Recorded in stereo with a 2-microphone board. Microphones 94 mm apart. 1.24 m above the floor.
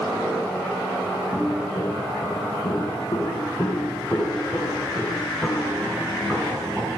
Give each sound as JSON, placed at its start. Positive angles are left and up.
{"t": 1.3, "sound": "footsteps", "side_deg": 45, "distance_m": 10.0}